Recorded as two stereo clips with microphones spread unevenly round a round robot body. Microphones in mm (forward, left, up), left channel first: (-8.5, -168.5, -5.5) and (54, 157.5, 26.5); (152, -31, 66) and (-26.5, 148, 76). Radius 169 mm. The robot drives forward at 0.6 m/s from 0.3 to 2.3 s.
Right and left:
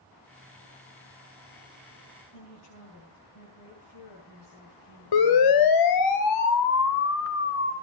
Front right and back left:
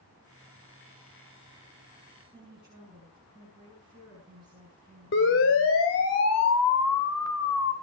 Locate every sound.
2.3 s a woman speaking: 140° right, 10 m
5.1 s a siren: 95° right, 2.5 m; by 7.7 s 45° right, 3 m